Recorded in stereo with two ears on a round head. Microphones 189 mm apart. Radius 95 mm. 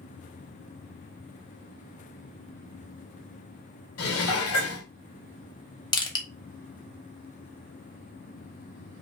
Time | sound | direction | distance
4.0 | dishes clattering | 75° left (ahead or behind) | 2 m
5.9 | crushing | 20° left (ahead or behind) | 1.1 m